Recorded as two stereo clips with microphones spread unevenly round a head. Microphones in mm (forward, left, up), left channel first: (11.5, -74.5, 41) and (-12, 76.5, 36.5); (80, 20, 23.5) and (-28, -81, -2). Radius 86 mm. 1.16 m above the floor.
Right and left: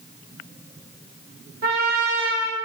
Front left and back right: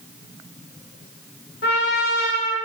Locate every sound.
1.6 s a trumpet: 70° left, 0.8 m